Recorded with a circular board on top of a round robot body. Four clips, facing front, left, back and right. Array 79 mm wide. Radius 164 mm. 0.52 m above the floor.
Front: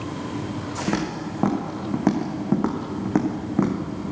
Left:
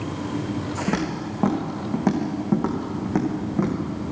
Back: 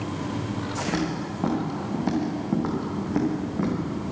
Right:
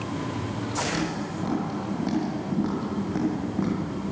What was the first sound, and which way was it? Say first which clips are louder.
Footsteps: left 3 dB, front 3 dB; 40° left.